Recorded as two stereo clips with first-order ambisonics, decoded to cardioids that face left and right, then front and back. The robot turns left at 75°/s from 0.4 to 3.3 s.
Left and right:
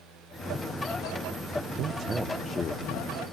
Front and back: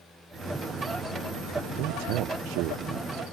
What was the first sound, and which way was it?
A man speaking, 125° right.